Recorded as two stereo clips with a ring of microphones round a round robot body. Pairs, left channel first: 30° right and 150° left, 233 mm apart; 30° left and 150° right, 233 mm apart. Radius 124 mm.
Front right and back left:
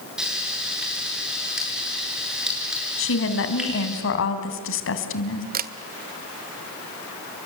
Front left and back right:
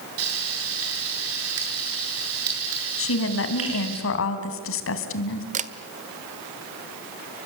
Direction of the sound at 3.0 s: Straight ahead.